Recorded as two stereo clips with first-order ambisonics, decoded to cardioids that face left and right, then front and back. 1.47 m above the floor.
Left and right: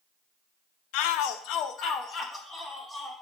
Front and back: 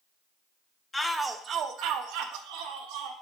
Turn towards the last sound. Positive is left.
turn(degrees=165)